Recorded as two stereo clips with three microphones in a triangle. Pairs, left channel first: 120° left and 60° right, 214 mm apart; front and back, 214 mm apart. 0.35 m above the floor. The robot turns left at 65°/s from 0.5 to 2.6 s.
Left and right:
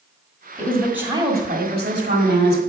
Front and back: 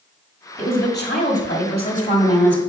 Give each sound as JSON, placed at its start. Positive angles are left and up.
{"t": 0.6, "sound": "a woman speaking", "azimuth_deg": 45, "distance_m": 1.4}